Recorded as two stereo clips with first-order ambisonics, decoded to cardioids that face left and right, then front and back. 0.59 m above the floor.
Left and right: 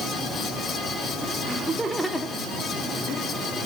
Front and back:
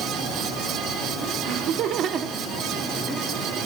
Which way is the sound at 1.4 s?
165° right.